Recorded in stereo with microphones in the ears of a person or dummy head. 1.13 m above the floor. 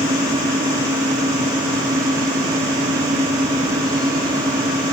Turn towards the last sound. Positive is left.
turn(degrees=-25)  # may be behind; listen again after turning